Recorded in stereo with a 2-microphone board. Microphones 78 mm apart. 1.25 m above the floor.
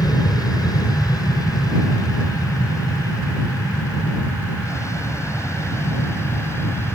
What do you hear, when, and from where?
0.0 s an aircraft: 55° left (ahead or behind); by 6.9 s 30° left (ahead or behind)